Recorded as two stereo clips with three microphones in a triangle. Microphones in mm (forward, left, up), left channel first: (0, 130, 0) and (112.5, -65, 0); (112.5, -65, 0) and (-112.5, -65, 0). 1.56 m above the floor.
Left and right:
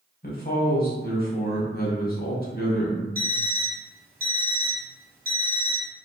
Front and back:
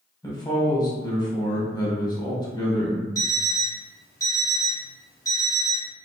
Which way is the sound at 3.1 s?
70° right.